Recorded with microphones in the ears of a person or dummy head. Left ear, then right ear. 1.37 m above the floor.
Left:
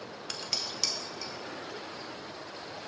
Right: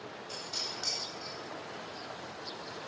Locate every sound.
0.3 s dishes clattering: 50° left (ahead or behind), 0.7 m